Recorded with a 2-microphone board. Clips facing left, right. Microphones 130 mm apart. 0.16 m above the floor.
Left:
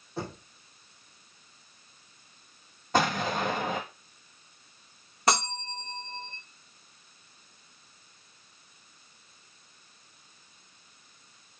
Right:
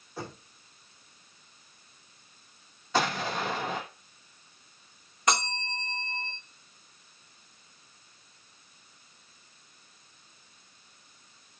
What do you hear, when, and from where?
0.2 s knocking: 25° left (ahead or behind), 4.5 m
2.9 s an explosion: 50° left (ahead or behind), 1.5 m
5.3 s a bell: 35° left (ahead or behind), 4.5 m